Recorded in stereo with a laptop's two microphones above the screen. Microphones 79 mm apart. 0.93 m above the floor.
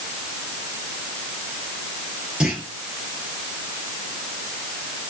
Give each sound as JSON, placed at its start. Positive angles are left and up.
{"t": 2.4, "sound": "a clunk", "side_deg": -10, "distance_m": 3.5}